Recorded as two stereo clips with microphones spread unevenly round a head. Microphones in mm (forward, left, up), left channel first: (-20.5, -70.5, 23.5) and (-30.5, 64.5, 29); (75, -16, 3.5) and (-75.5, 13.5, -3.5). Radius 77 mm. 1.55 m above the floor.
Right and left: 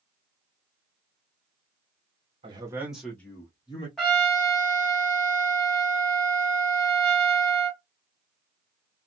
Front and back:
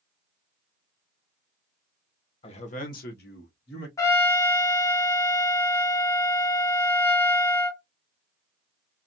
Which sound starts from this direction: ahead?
A trumpet, at 4.0 s.